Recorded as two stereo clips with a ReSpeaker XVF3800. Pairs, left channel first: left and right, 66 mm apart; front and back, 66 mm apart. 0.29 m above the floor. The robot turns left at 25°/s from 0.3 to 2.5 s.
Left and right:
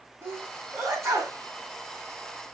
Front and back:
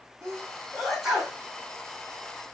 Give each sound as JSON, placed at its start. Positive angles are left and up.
{"t": 0.2, "sound": "a sneeze", "azimuth_deg": -80, "distance_m": 2.0}